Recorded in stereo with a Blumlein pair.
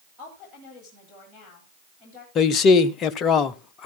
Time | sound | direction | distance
0.2 | a woman speaking | 15° left | 9 m
2.4 | a man speaking | 30° left | 0.8 m